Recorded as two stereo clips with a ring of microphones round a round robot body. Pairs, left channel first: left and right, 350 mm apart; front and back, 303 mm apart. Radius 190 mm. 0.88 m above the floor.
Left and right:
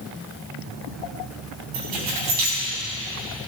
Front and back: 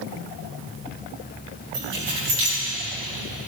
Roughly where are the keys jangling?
Behind right.